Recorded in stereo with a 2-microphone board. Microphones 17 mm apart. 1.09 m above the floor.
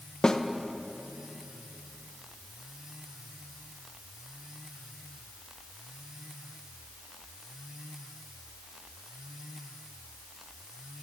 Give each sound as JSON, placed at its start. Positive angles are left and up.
{"t": 0.2, "sound": "a snare drum", "side_deg": 40, "distance_m": 0.6}